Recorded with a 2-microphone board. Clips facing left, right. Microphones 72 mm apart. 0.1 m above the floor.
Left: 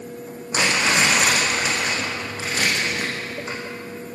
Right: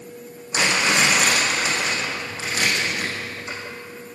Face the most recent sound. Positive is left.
turn(degrees=30)  # may be behind; listen again after turning